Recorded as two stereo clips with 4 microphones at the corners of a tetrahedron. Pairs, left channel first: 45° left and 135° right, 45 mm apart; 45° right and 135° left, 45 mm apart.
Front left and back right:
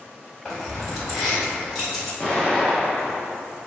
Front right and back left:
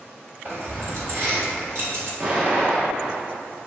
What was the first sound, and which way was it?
Keys jangling, 135° left.